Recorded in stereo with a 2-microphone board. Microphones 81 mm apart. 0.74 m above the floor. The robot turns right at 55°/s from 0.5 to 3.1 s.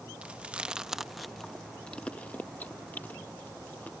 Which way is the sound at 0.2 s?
15° right (ahead or behind).